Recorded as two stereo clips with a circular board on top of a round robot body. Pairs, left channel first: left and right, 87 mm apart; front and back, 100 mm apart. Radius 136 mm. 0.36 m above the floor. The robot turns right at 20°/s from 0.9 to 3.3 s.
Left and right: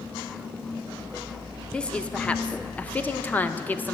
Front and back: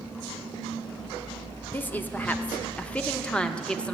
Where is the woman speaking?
30° left, 0.9 m; by 3.9 s 60° left, 0.9 m.